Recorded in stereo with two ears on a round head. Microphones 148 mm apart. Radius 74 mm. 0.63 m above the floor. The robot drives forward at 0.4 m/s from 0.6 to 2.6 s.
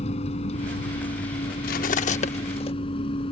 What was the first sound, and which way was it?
A vehicle, 40° left (ahead or behind).